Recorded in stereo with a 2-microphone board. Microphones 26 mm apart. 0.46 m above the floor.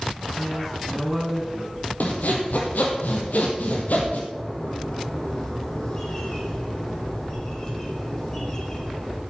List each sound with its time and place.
0.3 s a man speaking: 10° left (ahead or behind), 3.5 m
2.0 s sawing: 80° left, 2.5 m
4.3 s a bird: 25° left (ahead or behind), 4 m